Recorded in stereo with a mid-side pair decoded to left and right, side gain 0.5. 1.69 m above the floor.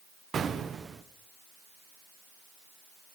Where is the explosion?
40° right, 1.1 m.